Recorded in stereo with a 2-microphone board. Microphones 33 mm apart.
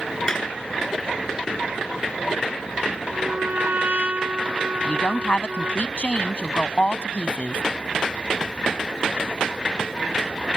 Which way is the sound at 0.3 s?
25° left (ahead or behind).